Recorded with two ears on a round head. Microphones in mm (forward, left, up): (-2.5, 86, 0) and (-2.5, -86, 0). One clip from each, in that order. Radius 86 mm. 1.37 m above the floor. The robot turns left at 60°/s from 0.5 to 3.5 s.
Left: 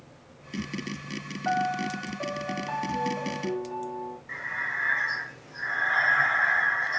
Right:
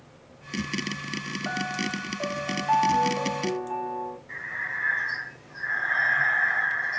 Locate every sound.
1.4 s a piano: 45° left, 0.5 m; by 4.2 s 80° right, 0.5 m
4.3 s breathing: 30° left (ahead or behind), 1.2 m